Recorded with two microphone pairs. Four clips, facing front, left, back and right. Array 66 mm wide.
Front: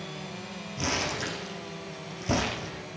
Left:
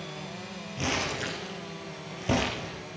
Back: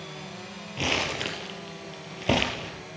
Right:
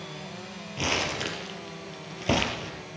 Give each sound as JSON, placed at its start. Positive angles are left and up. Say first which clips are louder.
{"t": 0.8, "sound": "crumpling", "louder": "right 2 dB, back 2 dB", "azimuth_deg": -160, "distance_m": 3.0}